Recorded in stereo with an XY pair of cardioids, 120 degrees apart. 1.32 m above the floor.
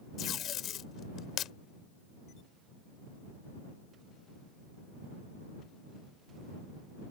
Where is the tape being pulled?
60° left.